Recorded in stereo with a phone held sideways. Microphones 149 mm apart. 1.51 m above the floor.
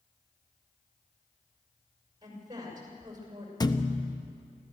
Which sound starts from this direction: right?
A woman speaking, at 2.2 s.